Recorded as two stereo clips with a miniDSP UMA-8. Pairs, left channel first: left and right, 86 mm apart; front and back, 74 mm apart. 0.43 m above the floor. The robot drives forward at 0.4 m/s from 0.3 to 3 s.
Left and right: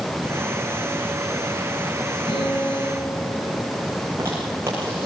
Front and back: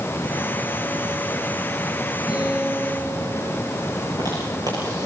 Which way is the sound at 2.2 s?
105° left.